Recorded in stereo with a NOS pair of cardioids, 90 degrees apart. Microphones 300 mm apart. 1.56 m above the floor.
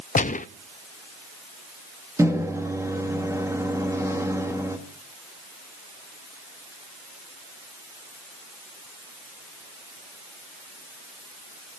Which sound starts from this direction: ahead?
A microwave, at 2.2 s.